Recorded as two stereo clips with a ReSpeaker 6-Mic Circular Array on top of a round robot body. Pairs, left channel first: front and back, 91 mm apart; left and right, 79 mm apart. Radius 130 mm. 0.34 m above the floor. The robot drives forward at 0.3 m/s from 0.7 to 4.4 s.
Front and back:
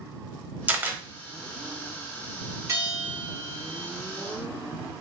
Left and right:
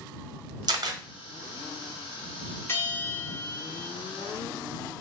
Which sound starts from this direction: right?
A camera shutter, at 0.7 s.